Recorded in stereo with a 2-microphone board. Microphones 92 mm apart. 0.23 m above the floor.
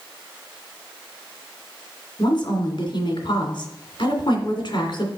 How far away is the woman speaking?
About 2.5 m.